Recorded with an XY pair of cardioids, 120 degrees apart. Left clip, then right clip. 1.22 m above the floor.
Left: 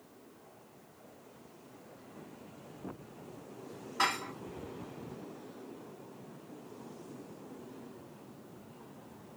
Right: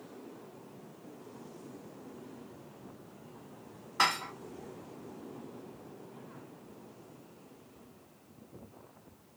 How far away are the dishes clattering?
About 1.0 m.